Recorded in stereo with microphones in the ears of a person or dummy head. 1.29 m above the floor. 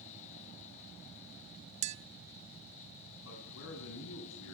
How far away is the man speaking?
About 8 m.